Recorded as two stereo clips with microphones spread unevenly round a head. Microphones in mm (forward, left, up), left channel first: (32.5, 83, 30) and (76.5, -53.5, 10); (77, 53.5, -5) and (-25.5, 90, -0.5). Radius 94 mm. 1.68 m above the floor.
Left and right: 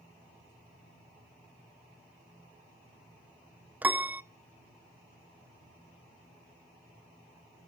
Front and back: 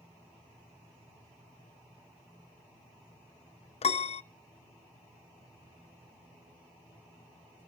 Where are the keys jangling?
I don't hear keys jangling.